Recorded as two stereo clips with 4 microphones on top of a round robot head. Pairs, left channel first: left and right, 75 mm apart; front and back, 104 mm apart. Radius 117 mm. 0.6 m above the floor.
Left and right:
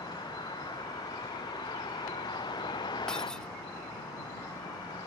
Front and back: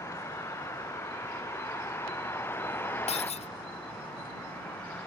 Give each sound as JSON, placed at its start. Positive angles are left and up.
{"t": 0.0, "sound": "a vehicle", "azimuth_deg": 60}
{"t": 3.1, "sound": "breaking glass", "azimuth_deg": 5}